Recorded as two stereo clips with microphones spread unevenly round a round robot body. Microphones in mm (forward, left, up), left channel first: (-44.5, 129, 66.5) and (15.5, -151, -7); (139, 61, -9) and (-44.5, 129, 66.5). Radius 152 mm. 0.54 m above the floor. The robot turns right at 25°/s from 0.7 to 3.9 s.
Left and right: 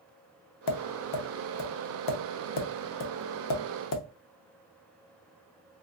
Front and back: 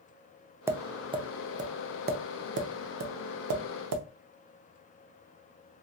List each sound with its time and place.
0.7 s tapping: 70° left, 0.8 m; by 4.0 s 150° left, 0.8 m